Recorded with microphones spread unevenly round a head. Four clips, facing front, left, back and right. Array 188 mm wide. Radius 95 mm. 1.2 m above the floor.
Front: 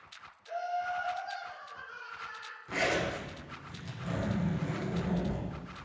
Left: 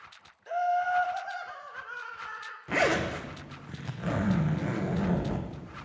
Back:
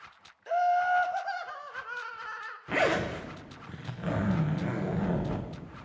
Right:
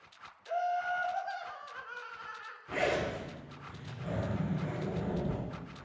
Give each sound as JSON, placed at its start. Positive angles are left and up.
{"t": 0.5, "sound": "laughter", "azimuth_deg": 150, "distance_m": 0.7}
{"t": 2.7, "sound": "a zipper", "azimuth_deg": 120, "distance_m": 0.8}